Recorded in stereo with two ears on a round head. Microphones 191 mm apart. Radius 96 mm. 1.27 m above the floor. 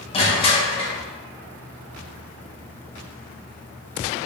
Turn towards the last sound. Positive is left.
turn(degrees=25)  # may be behind; listen again after turning